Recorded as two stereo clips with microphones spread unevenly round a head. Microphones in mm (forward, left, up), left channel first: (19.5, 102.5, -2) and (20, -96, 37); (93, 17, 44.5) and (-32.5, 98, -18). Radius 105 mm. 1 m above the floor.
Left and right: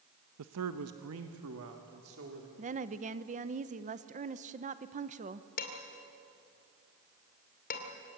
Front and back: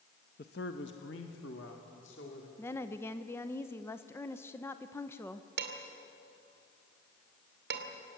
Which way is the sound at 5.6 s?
140° left.